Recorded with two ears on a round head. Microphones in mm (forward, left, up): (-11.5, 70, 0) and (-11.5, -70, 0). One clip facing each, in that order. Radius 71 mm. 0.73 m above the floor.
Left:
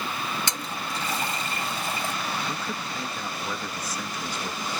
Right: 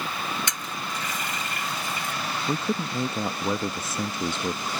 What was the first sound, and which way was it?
A toilet flushing, 25° left (ahead or behind).